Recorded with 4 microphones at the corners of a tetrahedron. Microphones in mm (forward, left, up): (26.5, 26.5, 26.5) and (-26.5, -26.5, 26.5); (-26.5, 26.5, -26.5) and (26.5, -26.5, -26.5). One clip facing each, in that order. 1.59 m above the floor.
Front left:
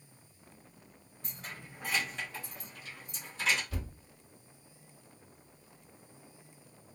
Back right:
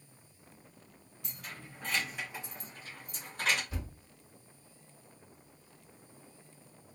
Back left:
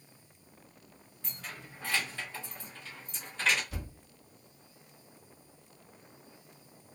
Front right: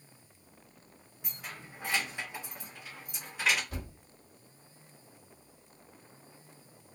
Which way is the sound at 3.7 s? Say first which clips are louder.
Front left 1 dB, front right 1 dB; 70° right.